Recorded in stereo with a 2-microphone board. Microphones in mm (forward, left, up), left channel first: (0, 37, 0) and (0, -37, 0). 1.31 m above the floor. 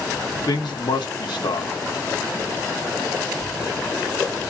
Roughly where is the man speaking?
Left.